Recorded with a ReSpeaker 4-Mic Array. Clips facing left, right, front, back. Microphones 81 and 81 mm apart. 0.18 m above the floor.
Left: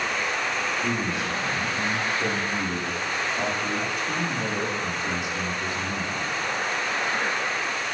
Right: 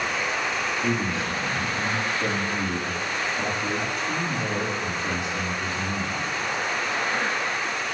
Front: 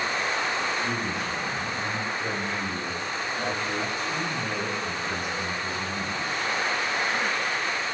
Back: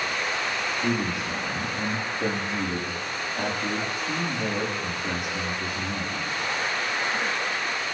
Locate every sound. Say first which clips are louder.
0.8 s a man speaking: right 1 dB, back 2 dB; 175° left, 9 m